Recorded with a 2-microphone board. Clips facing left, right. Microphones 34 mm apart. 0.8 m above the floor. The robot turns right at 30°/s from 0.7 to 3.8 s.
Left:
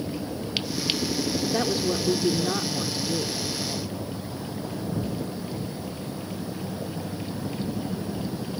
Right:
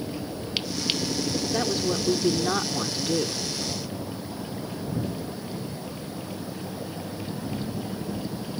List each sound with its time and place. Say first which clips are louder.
1.4 s a woman speaking: left 1 dB; 170° left; by 3.4 s 130° right